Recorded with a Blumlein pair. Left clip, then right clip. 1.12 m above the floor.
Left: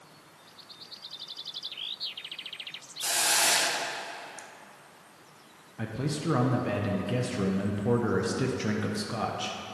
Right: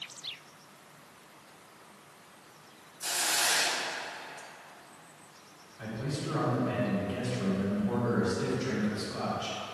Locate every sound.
3.0 s a hiss: 20° left, 0.5 m
5.8 s a man speaking: 45° left, 0.9 m